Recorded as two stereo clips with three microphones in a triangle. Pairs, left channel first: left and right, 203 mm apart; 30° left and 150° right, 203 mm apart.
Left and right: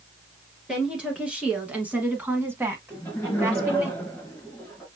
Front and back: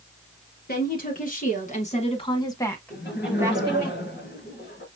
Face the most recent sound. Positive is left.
turn(degrees=10)